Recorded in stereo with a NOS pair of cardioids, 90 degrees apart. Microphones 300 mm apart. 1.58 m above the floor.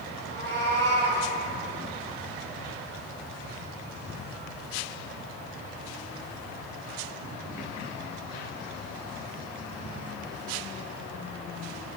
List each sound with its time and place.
0.2 s a cat meowing: 35° right, 5 m